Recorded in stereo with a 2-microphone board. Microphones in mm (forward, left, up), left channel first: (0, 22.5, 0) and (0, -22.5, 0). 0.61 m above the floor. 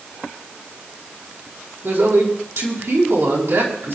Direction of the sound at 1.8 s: 70° right (ahead or behind).